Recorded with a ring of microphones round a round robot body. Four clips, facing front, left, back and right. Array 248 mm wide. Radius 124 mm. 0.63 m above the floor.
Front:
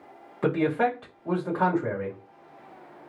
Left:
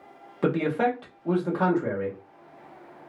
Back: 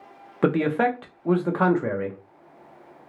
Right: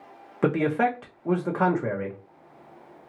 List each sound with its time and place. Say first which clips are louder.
0.4 s a man speaking: right 1 dB, back 3 dB; 160° right, 0.9 m